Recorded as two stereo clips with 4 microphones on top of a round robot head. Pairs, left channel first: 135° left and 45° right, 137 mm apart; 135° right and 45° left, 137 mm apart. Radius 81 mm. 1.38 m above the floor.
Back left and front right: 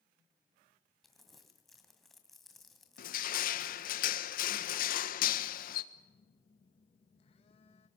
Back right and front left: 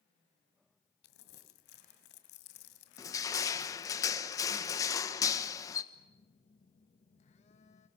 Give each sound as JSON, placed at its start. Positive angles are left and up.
{"t": 1.0, "sound": "crumpling", "azimuth_deg": -135, "distance_m": 2.0}
{"t": 3.0, "sound": "crushing", "azimuth_deg": 160, "distance_m": 1.4}
{"t": 5.9, "sound": "a phone buzzing", "azimuth_deg": -175, "distance_m": 2.0}